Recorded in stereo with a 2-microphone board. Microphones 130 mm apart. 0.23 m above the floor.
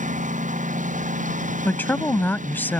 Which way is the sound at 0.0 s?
75° right (ahead or behind).